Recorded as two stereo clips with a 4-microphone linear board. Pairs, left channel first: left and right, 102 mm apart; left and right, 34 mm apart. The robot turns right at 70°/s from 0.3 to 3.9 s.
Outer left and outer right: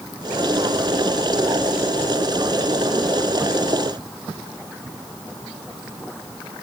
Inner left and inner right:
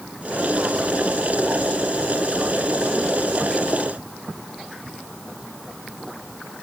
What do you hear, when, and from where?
Only background noise.